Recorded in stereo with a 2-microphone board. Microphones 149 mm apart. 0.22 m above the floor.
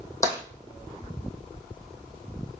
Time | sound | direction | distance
0.2 | tapping | 20° left (ahead or behind) | 2 m